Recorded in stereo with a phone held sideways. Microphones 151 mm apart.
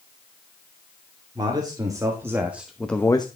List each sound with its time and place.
1.4 s a man speaking: 30° right (ahead or behind), 2.5 m; by 3.3 s 30° left (ahead or behind), 0.7 m